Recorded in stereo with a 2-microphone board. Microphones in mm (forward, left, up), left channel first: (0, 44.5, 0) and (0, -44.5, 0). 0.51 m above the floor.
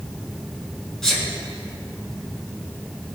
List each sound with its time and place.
1.0 s a sneeze: 5° left (ahead or behind), 4.5 m